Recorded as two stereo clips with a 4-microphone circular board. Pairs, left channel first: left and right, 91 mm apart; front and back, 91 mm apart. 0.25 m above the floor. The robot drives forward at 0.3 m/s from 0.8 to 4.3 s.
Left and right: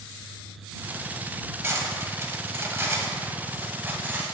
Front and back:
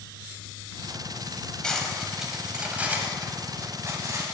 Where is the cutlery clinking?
75° right, 0.8 m; by 4.3 s 150° right, 1.1 m.